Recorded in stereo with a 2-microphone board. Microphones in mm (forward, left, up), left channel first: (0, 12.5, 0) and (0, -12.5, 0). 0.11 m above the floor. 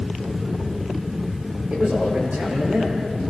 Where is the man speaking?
55° right (ahead or behind), 9.5 m.